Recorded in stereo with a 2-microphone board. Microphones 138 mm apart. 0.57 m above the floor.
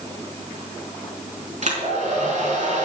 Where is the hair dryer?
55° right (ahead or behind), 4.5 m.